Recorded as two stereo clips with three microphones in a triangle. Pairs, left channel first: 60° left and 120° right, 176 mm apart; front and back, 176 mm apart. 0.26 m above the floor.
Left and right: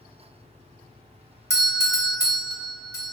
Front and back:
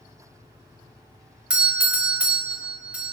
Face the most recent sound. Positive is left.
turn(degrees=105)